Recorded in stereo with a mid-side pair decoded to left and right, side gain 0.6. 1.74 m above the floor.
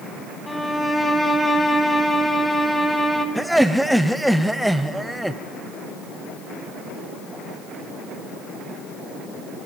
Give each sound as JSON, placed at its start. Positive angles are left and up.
{"t": 0.5, "sound": "a violin", "azimuth_deg": 5, "distance_m": 2.5}
{"t": 3.4, "sound": "laughter", "azimuth_deg": -5, "distance_m": 0.9}